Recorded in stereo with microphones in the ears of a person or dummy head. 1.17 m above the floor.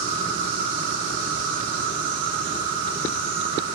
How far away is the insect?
About 0.8 m.